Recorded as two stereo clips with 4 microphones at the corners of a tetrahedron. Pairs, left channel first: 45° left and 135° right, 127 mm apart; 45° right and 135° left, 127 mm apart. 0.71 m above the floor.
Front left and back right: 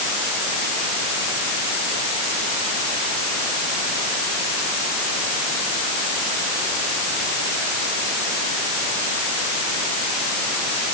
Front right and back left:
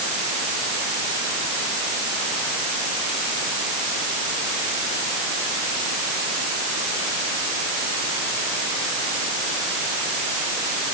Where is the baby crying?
No baby crying in this recording.